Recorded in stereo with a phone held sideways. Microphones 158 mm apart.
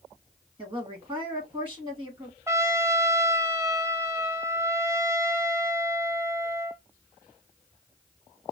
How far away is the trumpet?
About 0.5 m.